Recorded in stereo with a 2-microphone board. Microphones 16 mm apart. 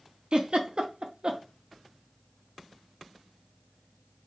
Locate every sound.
0.3 s a giggle: 70° right (ahead or behind), 0.7 m